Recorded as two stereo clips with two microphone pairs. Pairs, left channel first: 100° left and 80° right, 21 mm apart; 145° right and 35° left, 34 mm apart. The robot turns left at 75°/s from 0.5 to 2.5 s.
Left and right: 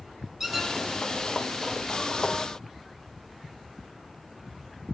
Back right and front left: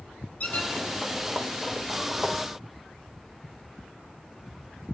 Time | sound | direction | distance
0.4 | a squeak | 150° right | 0.8 m